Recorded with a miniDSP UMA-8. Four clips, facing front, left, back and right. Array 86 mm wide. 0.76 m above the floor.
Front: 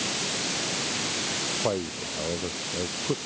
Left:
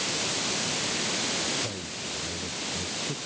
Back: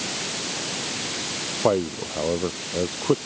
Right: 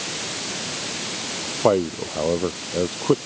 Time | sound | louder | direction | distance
1.6 | a man speaking | right 18 dB, back 8 dB | 115° right | ?